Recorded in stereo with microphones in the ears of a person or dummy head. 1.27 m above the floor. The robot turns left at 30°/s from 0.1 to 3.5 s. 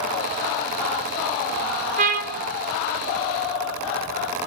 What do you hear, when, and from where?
2.0 s a trumpet: 40° right (ahead or behind), 1.2 m; by 2.4 s 50° right (ahead or behind), 1.2 m